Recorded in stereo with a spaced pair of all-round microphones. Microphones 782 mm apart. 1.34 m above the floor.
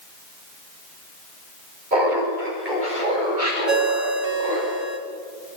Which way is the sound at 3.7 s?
55° right (ahead or behind).